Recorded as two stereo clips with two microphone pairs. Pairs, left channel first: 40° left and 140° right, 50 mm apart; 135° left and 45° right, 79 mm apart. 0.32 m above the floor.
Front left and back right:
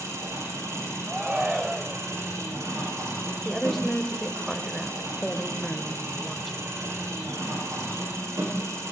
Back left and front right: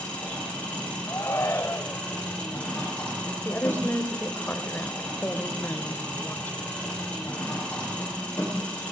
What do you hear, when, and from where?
0.0 s an engine running: 150° right, 8.5 m
1.1 s a shout: 155° left, 1.0 m
3.5 s a woman speaking: 125° left, 1.4 m